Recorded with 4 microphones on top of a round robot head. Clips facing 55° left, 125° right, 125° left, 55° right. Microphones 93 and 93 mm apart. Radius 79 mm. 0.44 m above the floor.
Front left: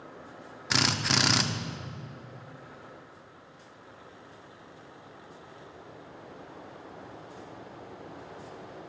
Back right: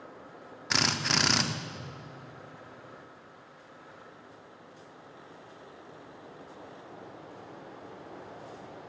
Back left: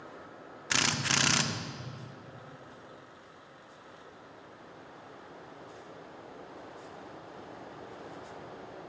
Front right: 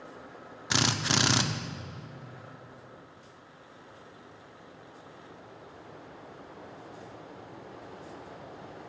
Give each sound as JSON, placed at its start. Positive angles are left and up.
{"t": 0.7, "sound": "a drill", "azimuth_deg": -30, "distance_m": 1.1}